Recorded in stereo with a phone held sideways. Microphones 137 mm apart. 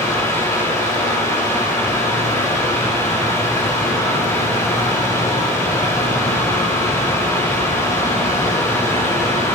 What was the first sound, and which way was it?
A fan, 25° left (ahead or behind).